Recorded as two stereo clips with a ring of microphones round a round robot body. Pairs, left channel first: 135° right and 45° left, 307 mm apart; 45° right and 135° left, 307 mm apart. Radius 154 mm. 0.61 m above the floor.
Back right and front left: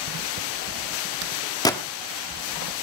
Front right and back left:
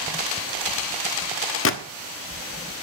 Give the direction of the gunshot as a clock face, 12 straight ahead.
2 o'clock.